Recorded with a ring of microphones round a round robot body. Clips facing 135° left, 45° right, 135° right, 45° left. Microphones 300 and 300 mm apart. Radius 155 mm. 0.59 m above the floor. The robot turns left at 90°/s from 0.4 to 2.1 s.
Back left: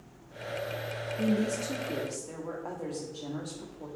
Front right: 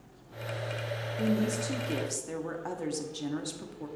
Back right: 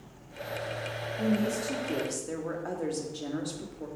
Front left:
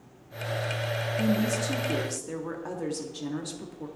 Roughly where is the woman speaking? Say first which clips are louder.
Even, front left 1 dB; ahead left.